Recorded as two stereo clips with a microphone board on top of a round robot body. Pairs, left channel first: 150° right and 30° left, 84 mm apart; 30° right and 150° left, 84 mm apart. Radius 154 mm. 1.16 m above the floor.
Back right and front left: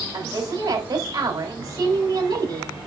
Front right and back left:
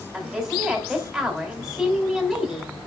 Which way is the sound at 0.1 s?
65° left.